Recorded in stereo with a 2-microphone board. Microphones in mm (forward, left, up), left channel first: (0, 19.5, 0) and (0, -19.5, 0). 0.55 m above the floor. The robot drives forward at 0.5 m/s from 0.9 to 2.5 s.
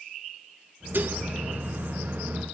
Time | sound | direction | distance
0.9 | dishes clattering | 60° right (ahead or behind) | 1.0 m